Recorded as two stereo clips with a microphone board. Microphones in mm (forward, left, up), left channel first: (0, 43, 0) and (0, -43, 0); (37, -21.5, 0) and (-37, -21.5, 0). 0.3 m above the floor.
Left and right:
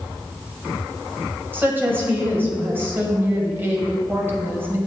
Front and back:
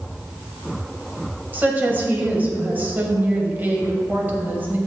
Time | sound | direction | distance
1.5 | a woman speaking | 135° right | 1.5 m